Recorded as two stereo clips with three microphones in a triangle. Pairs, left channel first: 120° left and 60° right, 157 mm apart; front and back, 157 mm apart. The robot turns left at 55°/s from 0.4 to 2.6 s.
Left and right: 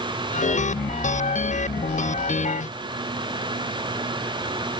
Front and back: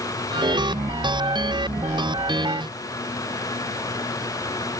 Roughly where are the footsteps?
I don't hear footsteps.